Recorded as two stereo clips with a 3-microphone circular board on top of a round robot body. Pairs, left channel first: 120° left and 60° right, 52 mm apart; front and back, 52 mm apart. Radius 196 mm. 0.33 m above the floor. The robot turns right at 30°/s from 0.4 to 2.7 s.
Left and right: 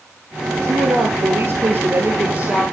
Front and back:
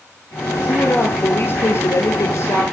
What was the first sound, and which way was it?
A woman speaking, 60° right.